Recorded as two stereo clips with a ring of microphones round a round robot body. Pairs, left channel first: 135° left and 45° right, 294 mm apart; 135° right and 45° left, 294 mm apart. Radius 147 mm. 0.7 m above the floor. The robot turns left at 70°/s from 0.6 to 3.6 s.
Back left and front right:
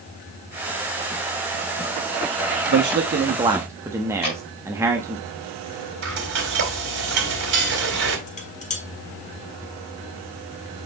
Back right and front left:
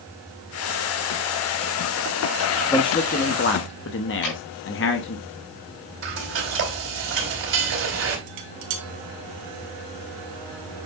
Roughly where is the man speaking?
Ahead right.